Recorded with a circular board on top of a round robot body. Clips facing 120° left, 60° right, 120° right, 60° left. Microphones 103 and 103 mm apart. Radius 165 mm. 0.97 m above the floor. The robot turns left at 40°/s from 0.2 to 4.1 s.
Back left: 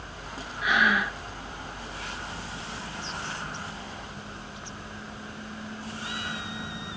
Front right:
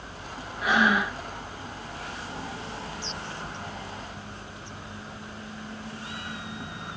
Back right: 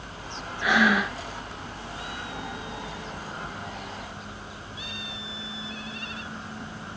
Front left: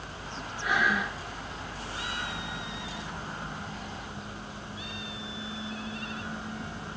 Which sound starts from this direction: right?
Breathing, at 0.6 s.